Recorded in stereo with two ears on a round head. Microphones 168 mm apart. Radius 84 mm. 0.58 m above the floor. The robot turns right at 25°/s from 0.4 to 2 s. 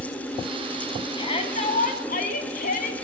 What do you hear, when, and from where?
1.2 s a shout: 25° left (ahead or behind), 4.5 m; by 3.0 s 45° left (ahead or behind), 4.5 m